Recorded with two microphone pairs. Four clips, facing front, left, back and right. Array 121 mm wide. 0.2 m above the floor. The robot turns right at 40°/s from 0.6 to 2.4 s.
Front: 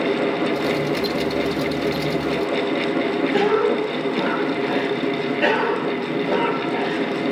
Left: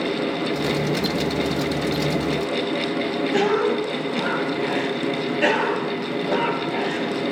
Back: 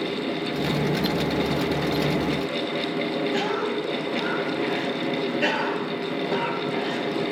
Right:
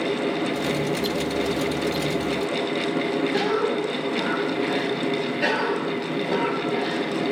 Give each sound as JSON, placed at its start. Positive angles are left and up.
{"t": 3.3, "sound": "a cough", "azimuth_deg": 40, "distance_m": 1.3}